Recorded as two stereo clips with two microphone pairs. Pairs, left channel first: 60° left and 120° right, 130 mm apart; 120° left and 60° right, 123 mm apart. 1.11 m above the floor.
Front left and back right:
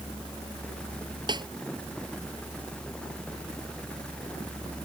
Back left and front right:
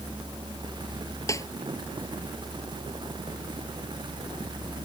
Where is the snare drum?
175° right.